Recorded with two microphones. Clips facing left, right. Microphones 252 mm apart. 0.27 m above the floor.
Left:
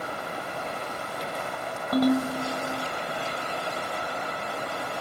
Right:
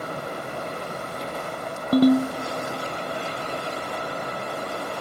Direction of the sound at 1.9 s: 30° right (ahead or behind).